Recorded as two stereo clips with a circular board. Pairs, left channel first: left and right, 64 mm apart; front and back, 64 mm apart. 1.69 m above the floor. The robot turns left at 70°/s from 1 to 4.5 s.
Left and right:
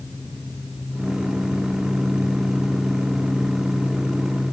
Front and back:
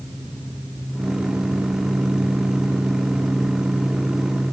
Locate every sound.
Only background noise.